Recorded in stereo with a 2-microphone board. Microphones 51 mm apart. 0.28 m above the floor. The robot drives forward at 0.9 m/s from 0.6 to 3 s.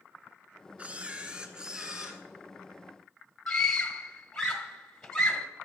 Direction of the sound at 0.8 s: 25° right (ahead or behind).